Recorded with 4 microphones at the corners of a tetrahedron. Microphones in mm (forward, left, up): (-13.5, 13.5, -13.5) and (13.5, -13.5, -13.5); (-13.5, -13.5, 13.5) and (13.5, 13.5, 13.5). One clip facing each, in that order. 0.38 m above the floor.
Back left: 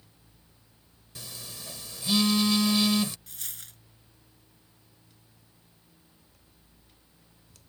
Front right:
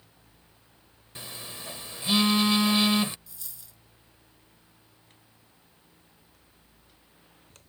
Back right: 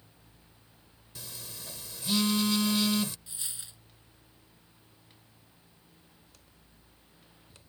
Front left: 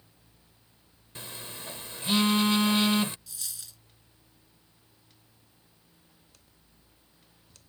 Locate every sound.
1.1 s a phone buzzing: 5° left
3.3 s a dropped coin: 160° left